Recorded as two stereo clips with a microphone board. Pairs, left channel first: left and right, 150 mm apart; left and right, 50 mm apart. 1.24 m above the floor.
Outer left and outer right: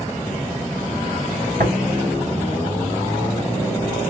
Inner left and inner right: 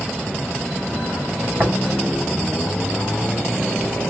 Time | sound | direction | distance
1.6 | tapping | 65° right (ahead or behind) | 3.5 m